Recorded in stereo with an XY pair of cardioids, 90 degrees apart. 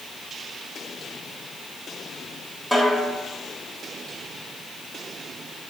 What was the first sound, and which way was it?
A snare drum, 5° left.